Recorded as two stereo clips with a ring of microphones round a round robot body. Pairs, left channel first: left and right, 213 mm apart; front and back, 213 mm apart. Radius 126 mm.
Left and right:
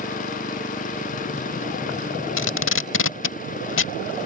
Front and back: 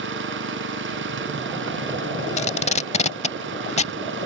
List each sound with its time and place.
0.0 s an engine running: 150° left
2.4 s tape being pulled: 60° left